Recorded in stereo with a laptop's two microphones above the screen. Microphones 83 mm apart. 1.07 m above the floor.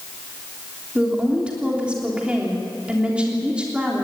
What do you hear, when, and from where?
0.9 s a woman speaking: 15° right (ahead or behind), 3.5 m